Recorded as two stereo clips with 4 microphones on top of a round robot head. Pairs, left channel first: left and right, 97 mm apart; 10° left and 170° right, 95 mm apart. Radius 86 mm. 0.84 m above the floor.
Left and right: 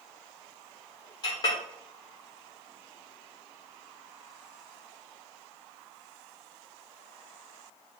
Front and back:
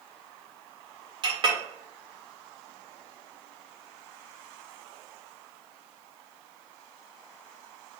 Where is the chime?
No chime in this recording.